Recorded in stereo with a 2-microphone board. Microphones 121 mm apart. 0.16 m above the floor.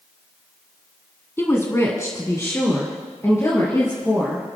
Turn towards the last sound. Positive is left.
turn(degrees=20)  # may be behind; listen again after turning